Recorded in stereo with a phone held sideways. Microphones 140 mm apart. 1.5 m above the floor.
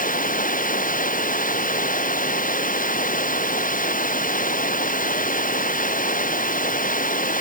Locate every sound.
0.0 s running water: 75° left (ahead or behind)